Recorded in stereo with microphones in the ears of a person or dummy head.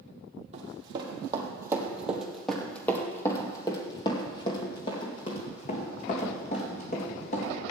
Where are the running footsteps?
35° right (ahead or behind), 2.5 m; by 7.6 s 55° left (ahead or behind), 5 m.